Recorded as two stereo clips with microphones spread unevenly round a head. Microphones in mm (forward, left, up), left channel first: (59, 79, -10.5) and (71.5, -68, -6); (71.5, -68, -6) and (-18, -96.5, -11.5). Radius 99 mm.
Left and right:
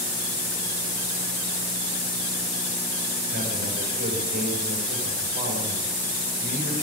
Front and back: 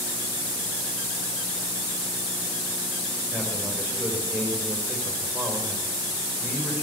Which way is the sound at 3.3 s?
90° right.